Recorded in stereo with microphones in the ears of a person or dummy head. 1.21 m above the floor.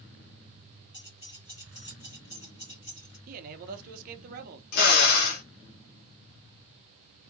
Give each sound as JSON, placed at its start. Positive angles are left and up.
{"t": 0.9, "sound": "keys jangling", "side_deg": 30, "distance_m": 1.6}
{"t": 3.3, "sound": "a man speaking", "side_deg": -55, "distance_m": 0.6}
{"t": 4.7, "sound": "a drill", "side_deg": 55, "distance_m": 0.5}